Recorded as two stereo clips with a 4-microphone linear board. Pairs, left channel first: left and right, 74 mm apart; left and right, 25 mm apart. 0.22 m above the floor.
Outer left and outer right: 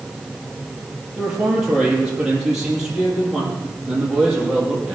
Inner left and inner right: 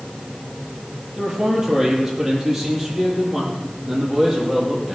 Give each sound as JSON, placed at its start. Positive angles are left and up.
{"t": 1.2, "sound": "a man speaking", "side_deg": -10, "distance_m": 5.5}